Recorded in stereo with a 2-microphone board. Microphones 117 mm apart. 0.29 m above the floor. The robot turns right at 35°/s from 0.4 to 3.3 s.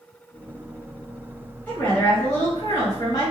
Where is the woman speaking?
25° left, 1.3 m; by 3.3 s 85° left, 1.3 m.